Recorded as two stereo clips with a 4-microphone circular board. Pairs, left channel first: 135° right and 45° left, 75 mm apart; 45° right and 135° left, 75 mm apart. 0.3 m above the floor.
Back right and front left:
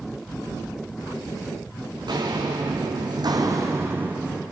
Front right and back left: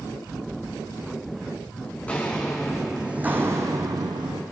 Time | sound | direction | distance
1.9 | footsteps | 25° left | 1.7 m